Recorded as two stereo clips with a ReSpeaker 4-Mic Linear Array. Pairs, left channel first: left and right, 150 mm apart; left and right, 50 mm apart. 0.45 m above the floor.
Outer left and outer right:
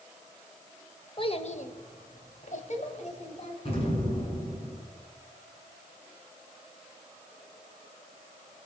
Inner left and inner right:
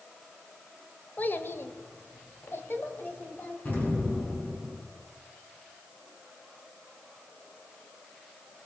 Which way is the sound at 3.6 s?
45° left (ahead or behind).